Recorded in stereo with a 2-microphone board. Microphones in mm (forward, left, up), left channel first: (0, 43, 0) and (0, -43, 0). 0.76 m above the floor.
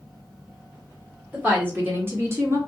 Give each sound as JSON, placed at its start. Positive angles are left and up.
{"t": 1.3, "sound": "a woman speaking", "side_deg": -20, "distance_m": 1.5}